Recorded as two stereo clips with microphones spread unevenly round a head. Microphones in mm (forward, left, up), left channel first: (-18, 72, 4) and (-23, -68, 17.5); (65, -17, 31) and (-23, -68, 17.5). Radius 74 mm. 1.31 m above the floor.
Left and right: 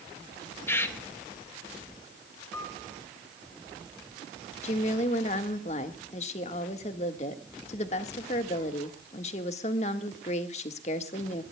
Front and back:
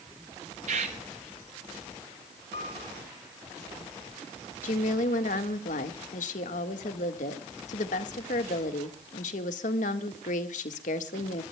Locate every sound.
0.7 s a bird: 165° left, 1.6 m
2.5 s a piano: 10° left, 4.5 m
4.6 s a woman speaking: 35° left, 1.6 m